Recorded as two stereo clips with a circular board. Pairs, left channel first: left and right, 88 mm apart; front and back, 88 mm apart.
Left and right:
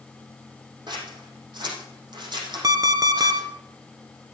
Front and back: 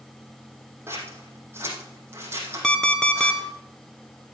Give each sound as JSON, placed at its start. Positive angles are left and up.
{"t": 0.9, "sound": "scissors", "azimuth_deg": -120, "distance_m": 4.5}
{"t": 2.6, "sound": "an alarm clock", "azimuth_deg": -75, "distance_m": 1.1}